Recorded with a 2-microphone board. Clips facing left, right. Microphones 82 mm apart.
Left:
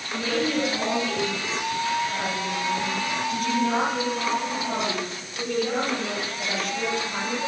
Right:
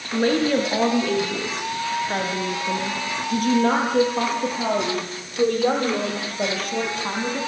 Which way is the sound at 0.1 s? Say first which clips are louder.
Right 6 dB; 55° right (ahead or behind).